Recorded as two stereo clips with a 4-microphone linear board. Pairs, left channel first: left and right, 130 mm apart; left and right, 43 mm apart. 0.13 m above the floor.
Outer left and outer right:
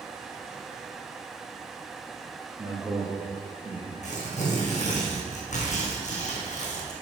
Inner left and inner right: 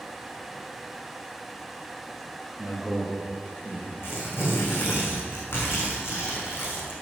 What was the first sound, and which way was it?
A man speaking, 5° right (ahead or behind).